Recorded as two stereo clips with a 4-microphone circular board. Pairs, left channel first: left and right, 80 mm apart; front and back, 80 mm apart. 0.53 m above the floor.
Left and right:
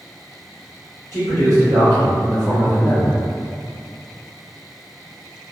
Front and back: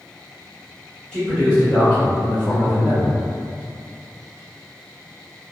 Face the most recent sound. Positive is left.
turn(degrees=10)